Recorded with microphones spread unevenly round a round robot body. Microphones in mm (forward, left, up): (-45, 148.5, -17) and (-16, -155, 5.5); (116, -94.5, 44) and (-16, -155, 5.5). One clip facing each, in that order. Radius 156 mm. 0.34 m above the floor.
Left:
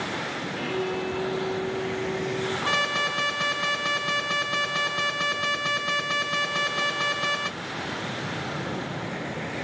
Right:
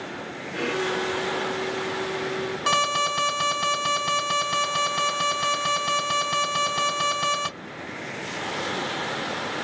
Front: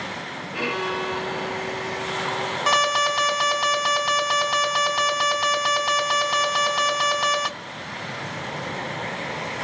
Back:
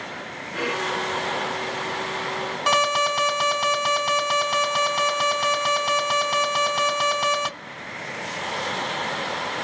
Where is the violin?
50° right, 3 m.